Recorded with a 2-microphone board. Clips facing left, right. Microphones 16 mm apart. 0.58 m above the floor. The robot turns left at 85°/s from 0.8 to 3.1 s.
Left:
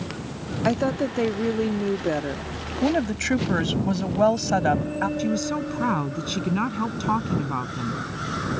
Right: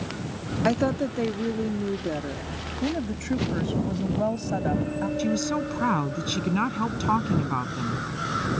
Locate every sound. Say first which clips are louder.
0.7 s a woman speaking: left 1 dB; straight behind; by 2.4 s 40° left
2.8 s a woman speaking: left 7 dB; 70° left (ahead or behind); by 5.1 s 50° left (ahead or behind)
5.2 s a woman speaking: even; 5° right (ahead or behind)